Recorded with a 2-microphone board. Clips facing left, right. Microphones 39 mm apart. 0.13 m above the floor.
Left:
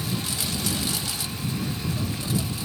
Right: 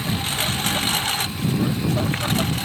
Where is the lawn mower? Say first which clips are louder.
Right 5 dB; 50° right (ahead or behind); by 2.6 s 65° right (ahead or behind).